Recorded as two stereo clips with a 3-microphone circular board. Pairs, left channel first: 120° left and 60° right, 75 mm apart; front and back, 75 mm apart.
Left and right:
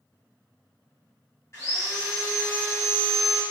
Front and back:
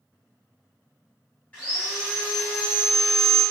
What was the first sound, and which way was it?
Sawing, 70° left.